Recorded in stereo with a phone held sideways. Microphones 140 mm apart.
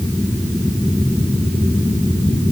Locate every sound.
Only background noise.